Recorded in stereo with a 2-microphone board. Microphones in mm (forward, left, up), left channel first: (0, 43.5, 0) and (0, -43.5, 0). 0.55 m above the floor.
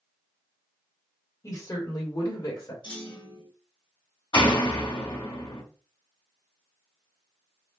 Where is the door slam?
80° left, 1.9 m.